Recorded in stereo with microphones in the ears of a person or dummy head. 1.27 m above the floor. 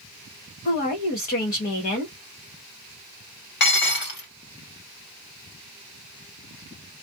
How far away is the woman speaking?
About 1.3 m.